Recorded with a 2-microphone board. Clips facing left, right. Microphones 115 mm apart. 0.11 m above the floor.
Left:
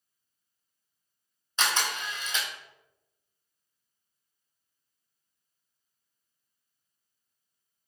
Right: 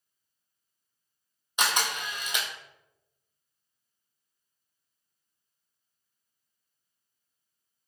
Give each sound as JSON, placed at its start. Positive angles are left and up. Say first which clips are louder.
{"t": 1.6, "sound": "a camera shutter", "louder": "right 1 dB", "side_deg": -15, "distance_m": 0.6}